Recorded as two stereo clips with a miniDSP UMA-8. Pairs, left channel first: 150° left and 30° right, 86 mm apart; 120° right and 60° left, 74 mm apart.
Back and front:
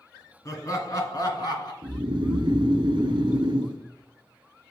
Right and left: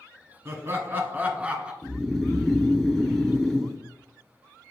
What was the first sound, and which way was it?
Laughter, 110° left.